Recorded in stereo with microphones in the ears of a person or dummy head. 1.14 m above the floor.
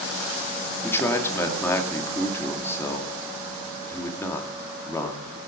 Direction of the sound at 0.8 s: 15° left (ahead or behind).